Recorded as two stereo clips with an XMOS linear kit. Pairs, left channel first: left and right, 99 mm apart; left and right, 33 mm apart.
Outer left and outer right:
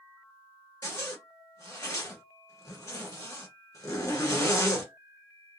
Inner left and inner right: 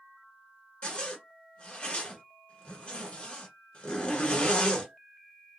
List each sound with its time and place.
0.8 s a zipper: 30° left (ahead or behind), 1.5 m